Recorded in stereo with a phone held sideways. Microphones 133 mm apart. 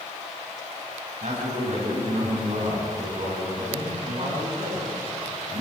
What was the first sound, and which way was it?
A man speaking, 60° right (ahead or behind).